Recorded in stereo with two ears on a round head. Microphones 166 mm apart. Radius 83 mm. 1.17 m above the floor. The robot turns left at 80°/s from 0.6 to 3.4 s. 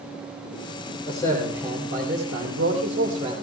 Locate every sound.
1.1 s a man speaking: 30° left, 3 m; by 3.3 s 155° right, 3 m